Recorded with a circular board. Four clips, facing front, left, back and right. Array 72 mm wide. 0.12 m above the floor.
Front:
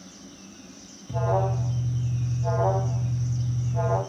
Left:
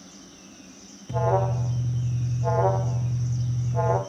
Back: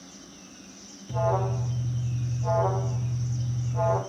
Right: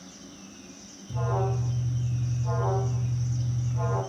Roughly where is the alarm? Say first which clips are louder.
Left 6 dB, front 1 dB; left.